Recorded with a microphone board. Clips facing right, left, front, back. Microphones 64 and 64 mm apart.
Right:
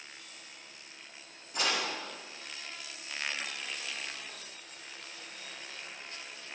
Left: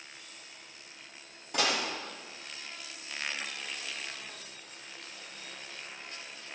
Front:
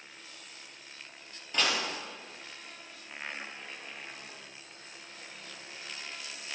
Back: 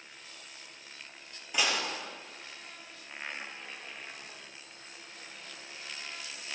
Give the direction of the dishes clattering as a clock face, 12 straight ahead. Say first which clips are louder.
Left 2 dB, even; 9 o'clock.